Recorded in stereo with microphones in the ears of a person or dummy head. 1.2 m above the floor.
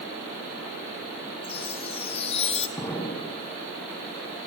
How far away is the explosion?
About 6 m.